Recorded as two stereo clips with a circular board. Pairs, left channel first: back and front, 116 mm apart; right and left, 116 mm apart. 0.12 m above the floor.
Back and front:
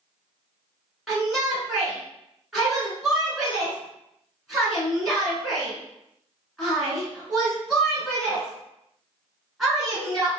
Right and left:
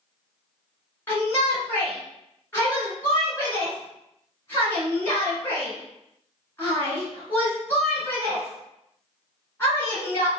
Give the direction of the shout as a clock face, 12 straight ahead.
3 o'clock.